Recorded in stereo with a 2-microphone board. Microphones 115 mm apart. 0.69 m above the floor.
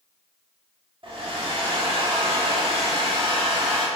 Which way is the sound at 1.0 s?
50° right (ahead or behind).